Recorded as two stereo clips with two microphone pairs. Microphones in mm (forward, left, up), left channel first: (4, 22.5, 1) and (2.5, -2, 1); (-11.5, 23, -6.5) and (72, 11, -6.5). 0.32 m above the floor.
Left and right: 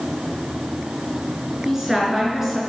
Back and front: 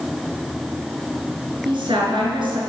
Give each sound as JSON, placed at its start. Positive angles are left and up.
{"t": 1.6, "sound": "a woman speaking", "azimuth_deg": -15, "distance_m": 5.0}